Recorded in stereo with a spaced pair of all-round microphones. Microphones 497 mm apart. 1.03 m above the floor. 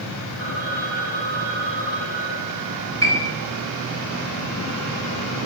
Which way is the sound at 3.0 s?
25° left (ahead or behind).